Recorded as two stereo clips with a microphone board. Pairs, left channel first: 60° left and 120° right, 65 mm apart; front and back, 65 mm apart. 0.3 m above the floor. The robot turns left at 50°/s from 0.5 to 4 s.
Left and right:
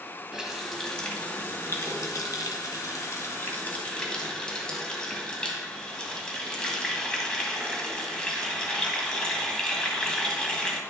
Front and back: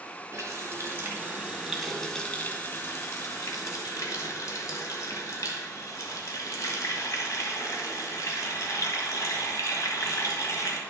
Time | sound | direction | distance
0.3 | a running tap | 160° left | 1.3 m